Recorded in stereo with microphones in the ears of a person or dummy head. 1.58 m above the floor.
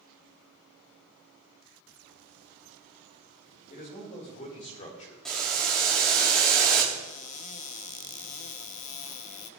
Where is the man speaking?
40° left (ahead or behind), 5.5 m; by 5.2 s 35° left (ahead or behind), 4 m.